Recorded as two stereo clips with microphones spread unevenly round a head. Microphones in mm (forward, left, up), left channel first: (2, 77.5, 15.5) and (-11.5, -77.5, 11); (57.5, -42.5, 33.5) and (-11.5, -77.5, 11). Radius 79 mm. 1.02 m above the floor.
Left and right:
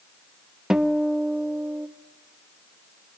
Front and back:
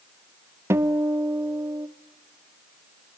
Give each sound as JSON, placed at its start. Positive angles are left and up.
{"t": 0.7, "sound": "a guitar", "azimuth_deg": 180, "distance_m": 0.9}